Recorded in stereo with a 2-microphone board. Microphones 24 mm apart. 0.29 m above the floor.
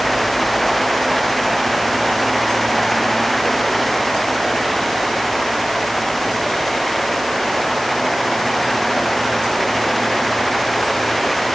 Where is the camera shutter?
I don't hear a camera shutter.